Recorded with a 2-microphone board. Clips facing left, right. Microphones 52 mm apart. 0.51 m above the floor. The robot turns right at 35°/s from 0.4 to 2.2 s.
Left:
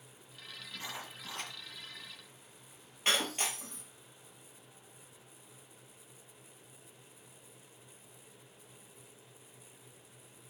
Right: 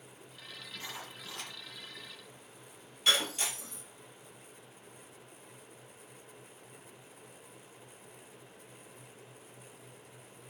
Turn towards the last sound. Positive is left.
turn(degrees=40)  # may be behind; listen again after turning